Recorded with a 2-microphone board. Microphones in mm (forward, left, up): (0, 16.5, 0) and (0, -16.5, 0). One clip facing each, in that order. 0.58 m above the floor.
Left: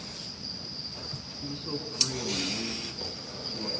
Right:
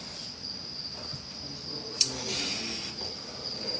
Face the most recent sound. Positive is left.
turn(degrees=40)  # may be behind; listen again after turning